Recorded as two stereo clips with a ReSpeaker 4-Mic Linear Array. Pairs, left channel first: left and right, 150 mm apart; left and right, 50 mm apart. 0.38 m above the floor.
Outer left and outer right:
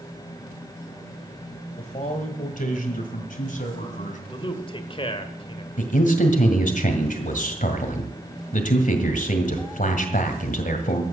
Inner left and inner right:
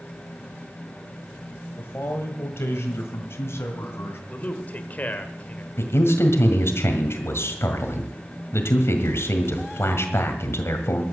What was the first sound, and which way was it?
A man speaking, 45° left (ahead or behind).